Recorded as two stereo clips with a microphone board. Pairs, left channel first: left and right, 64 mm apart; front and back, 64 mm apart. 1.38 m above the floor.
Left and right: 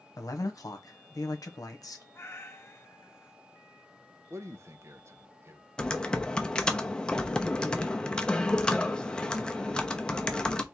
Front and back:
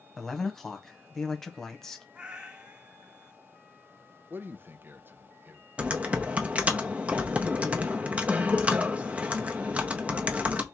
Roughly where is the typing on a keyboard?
Behind left.